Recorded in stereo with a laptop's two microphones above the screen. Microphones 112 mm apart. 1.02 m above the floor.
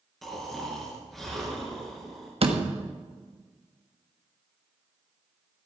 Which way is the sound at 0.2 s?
Centre (ahead or behind).